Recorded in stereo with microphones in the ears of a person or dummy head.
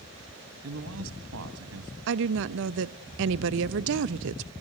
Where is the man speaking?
75° right (ahead or behind), 2.0 m.